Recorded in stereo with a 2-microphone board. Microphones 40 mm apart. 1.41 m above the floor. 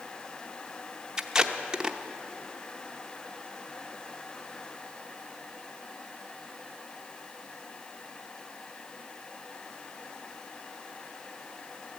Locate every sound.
1.2 s tape being pulled: 20° right (ahead or behind), 0.7 m